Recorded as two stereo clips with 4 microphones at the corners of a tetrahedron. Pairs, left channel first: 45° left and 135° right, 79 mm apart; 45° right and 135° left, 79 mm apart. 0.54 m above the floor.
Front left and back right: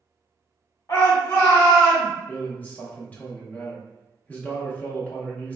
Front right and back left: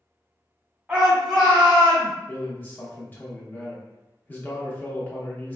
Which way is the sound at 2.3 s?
5° right.